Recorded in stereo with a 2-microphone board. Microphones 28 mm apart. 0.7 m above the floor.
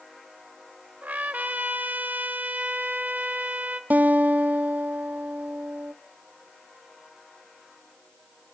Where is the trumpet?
80° right, 1.2 m.